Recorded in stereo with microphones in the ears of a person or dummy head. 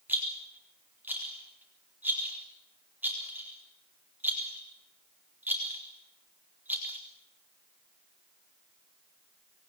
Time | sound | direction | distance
0.1 | a rattle | 5° right (ahead or behind) | 4 m